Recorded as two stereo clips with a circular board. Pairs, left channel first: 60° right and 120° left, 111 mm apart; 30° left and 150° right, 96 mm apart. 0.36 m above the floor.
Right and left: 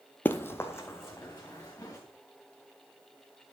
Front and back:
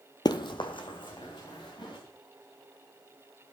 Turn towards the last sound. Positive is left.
turn(degrees=5)